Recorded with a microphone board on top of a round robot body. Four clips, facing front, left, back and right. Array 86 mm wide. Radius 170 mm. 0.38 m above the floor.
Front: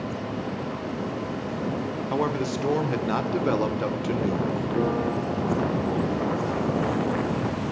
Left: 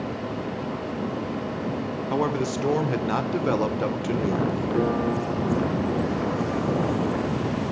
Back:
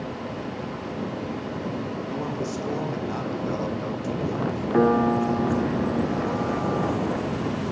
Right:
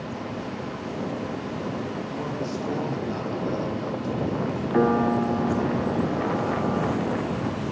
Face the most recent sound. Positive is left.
turn(degrees=-140)